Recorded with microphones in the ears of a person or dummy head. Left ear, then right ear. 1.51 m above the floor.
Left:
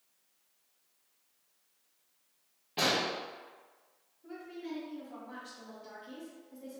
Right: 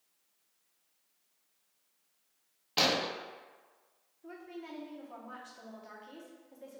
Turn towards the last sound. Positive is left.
turn(degrees=-30)  # may be behind; listen again after turning